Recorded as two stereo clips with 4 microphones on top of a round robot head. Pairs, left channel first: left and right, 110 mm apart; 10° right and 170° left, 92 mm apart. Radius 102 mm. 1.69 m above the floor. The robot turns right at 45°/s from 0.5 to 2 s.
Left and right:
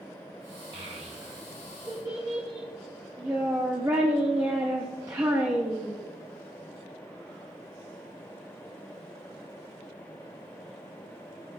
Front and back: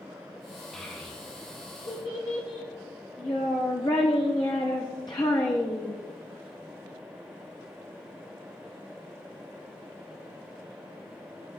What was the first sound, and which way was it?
A child speaking, 90° right.